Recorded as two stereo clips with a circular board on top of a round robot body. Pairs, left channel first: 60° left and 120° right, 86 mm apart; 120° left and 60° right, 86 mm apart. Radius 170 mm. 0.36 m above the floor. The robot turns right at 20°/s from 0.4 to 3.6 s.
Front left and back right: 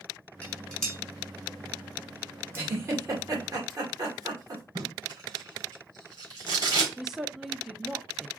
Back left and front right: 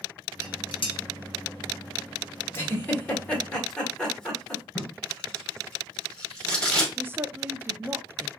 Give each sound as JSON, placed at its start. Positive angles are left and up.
{"t": 0.4, "sound": "dishes clattering", "azimuth_deg": 130, "distance_m": 1.8}
{"t": 2.5, "sound": "a giggle", "azimuth_deg": 180, "distance_m": 2.0}
{"t": 4.8, "sound": "tape being pulled", "azimuth_deg": -160, "distance_m": 3.0}
{"t": 7.0, "sound": "a woman speaking", "azimuth_deg": -40, "distance_m": 0.8}